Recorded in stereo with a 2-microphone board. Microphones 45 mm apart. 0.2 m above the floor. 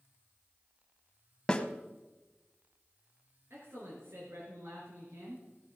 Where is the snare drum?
15° left (ahead or behind), 0.9 m.